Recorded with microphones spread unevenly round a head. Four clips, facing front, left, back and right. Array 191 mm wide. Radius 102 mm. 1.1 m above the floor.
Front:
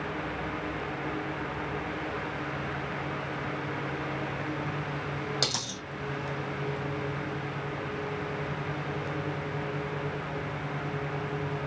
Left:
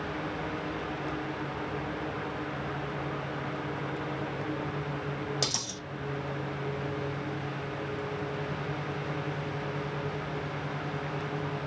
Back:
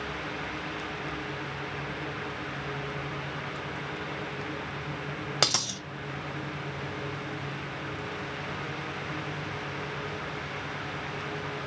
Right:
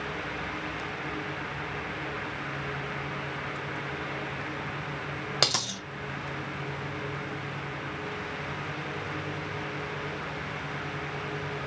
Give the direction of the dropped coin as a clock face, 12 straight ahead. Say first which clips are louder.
Right 5 dB, back 3 dB; 4 o'clock.